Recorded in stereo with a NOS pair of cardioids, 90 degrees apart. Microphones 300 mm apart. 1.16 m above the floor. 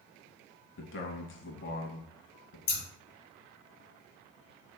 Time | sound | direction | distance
0.8 | a man speaking | 40° left | 1.0 m
2.7 | scissors | 60° left | 1.5 m